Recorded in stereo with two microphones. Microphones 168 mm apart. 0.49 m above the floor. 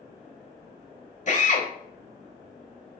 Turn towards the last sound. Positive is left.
turn(degrees=50)  # may be behind; listen again after turning